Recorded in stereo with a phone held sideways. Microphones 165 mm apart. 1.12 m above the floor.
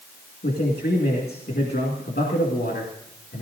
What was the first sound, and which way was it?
A man speaking, 85° left.